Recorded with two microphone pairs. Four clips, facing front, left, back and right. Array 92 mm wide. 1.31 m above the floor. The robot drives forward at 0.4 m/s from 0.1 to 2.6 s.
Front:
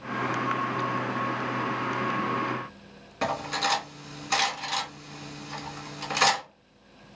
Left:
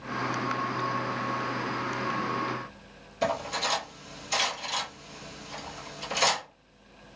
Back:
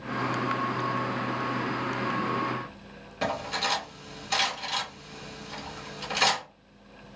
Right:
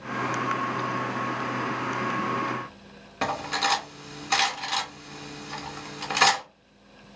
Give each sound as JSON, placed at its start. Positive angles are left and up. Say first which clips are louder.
{"t": 3.2, "sound": "cutlery clinking", "louder": "right 2 dB, front 2 dB", "azimuth_deg": -80, "distance_m": 1.0}